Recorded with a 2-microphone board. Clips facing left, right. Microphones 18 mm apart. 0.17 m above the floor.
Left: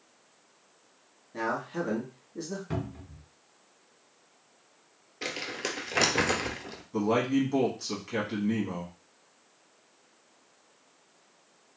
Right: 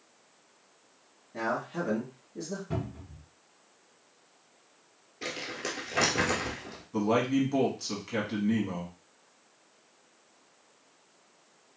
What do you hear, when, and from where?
1.3 s a man speaking: 10° left (ahead or behind), 1.1 m
2.7 s a cupboard door: 35° left (ahead or behind), 1.2 m
5.2 s crumpling: 20° left (ahead or behind), 0.7 m
6.9 s a man speaking: 5° right (ahead or behind), 1.1 m